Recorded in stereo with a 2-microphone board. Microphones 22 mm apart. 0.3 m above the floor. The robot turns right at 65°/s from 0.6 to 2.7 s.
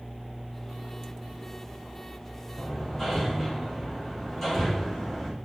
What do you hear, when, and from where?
2.6 s hammering: 15° left (ahead or behind), 5.5 m; by 5.3 s 10° left (ahead or behind), 5.5 m